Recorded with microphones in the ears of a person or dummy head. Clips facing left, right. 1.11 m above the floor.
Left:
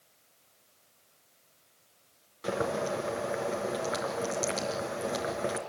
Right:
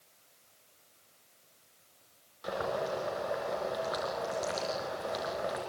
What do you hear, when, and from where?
2.4 s boiling: 35° left (ahead or behind), 4 m